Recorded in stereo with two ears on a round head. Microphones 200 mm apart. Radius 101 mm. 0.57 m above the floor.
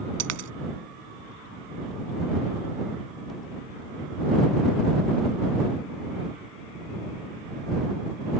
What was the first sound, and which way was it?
A dropped coin, 75° right (ahead or behind).